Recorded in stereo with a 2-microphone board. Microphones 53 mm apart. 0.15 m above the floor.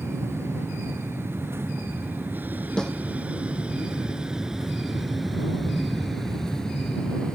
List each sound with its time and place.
0.0 s an aircraft: 60° right (ahead or behind); by 7.3 s 20° left (ahead or behind)
2.8 s a snare drum: 15° left (ahead or behind)